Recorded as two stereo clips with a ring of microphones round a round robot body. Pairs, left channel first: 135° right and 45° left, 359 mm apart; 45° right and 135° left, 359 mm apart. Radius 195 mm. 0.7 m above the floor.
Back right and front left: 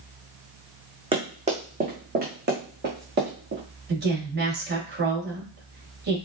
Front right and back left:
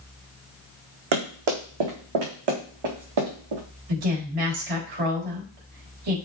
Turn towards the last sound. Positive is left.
turn(degrees=110)